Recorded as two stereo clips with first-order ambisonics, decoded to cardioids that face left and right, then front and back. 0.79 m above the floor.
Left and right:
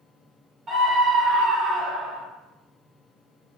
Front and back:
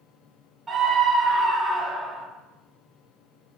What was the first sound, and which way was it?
A scream, 115° right.